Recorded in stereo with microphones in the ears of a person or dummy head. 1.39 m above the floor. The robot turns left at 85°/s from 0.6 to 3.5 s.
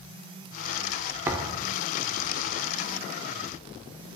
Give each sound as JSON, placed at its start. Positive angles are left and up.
{"t": 1.3, "sound": "a thud", "side_deg": -15, "distance_m": 1.1}